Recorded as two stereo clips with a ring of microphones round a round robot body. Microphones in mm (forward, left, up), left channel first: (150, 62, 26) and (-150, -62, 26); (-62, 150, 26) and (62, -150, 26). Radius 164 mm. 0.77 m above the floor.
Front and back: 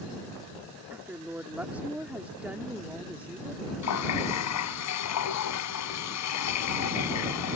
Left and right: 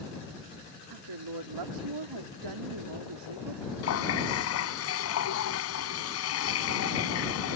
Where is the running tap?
65° left.